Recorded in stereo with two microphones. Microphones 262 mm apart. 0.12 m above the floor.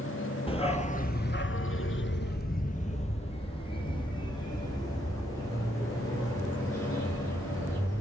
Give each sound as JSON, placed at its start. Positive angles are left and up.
{"t": 0.5, "sound": "a dog barking", "side_deg": 20, "distance_m": 0.8}